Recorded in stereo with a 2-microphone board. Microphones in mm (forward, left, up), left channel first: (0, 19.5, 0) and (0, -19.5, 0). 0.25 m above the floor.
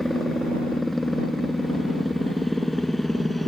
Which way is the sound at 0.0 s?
10° left (ahead or behind).